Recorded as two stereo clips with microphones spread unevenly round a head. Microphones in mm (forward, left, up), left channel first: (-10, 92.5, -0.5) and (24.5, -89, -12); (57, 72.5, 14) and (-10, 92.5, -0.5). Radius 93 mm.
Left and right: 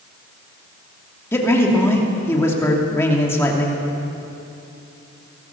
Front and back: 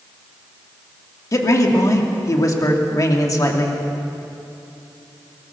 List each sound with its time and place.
1.3 s a man speaking: 25° left, 3 m